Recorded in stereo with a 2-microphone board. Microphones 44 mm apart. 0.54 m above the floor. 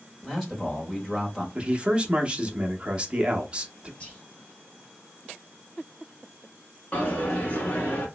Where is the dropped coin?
35° left (ahead or behind), 1.2 m.